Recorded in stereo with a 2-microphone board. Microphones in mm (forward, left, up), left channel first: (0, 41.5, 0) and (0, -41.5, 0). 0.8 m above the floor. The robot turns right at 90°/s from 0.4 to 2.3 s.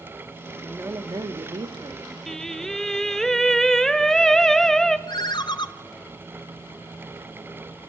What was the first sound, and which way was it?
A woman speaking, 175° right.